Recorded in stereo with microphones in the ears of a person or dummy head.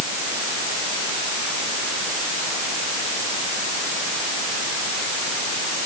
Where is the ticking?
I don't hear ticking.